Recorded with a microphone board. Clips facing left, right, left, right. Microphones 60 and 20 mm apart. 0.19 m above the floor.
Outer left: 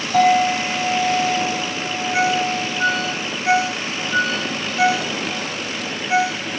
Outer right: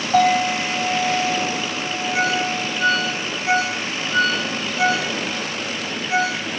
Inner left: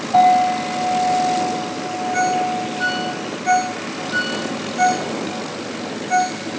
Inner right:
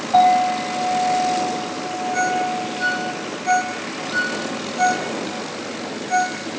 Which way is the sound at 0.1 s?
40° right (ahead or behind).